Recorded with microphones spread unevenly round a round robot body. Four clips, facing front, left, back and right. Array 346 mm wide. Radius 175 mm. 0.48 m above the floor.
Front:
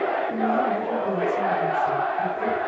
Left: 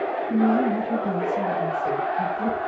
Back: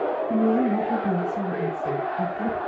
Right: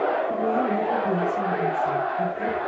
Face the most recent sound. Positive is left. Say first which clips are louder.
# left 2 dB, back 5 dB
turn(degrees=165)